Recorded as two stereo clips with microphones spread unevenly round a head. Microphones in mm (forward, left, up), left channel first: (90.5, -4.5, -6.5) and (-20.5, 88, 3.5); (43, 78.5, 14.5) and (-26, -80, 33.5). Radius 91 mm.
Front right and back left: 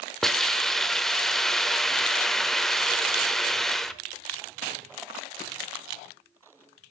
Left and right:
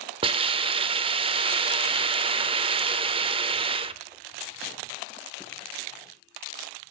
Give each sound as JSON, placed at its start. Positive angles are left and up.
{"t": 0.2, "sound": "a hiss", "azimuth_deg": -130, "distance_m": 0.8}